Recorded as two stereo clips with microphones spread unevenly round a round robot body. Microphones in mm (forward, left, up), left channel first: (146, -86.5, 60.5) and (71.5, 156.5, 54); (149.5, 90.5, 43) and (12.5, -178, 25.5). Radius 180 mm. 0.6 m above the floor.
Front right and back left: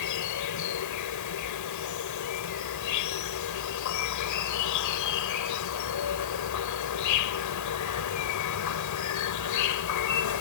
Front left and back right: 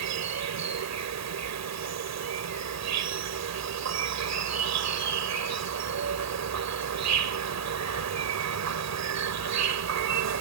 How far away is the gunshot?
I don't hear a gunshot.